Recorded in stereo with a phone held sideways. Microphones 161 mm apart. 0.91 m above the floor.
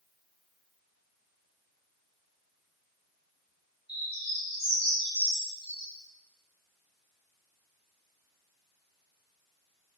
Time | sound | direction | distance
3.9 | a bird | 40° right (ahead or behind) | 1.3 m